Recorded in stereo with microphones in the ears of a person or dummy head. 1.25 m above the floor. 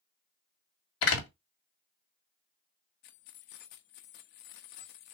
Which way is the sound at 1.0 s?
80° left.